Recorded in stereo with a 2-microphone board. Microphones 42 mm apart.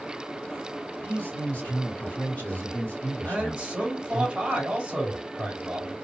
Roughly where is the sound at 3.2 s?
Centre.